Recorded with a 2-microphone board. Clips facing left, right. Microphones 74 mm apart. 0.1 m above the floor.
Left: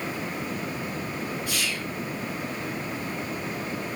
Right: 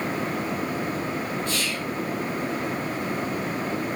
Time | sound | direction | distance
1.5 | whispering | 15° left (ahead or behind) | 1.6 m